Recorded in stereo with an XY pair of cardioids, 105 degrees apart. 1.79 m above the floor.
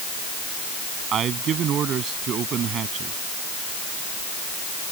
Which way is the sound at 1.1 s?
60° right.